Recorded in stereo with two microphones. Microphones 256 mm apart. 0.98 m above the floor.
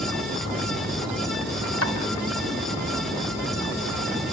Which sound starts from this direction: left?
Chopping, at 1.8 s.